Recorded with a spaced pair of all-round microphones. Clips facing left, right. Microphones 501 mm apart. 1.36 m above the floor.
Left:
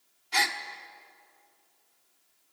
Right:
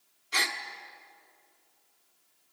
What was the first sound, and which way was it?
A gasp, 15° left (ahead or behind).